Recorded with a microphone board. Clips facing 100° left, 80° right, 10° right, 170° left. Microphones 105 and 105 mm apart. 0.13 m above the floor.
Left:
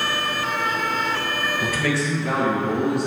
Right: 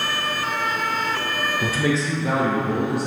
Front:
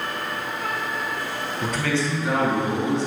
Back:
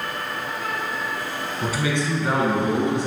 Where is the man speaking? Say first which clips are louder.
Right 2 dB, even; 95° right, 1.2 m; by 3.1 s 170° right, 2 m.